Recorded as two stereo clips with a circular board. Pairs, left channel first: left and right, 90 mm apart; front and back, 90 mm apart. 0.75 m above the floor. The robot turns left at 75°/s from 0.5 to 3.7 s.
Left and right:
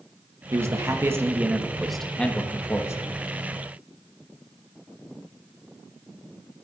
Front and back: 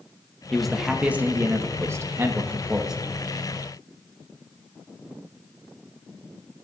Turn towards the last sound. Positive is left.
turn(degrees=45)